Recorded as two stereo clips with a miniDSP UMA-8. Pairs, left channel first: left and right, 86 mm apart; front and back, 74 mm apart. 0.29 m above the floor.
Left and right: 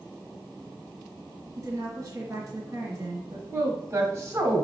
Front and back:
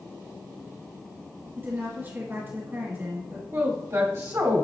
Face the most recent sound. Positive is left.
turn(degrees=-135)